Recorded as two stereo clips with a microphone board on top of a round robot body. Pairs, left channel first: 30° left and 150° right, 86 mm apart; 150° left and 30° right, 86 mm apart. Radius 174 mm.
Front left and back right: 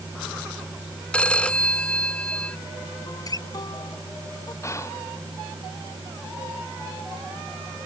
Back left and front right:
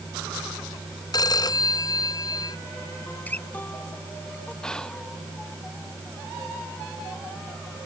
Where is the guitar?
75° left.